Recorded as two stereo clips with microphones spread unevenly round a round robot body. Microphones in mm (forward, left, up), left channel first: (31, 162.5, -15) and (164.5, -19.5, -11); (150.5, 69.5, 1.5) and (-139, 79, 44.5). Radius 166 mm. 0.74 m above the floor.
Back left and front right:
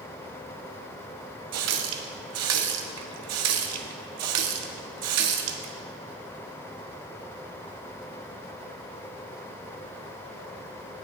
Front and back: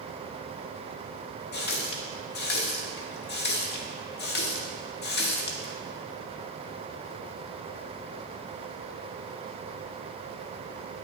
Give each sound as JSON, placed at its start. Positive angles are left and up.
{"t": 1.5, "sound": "a running tap", "azimuth_deg": -60, "distance_m": 0.6}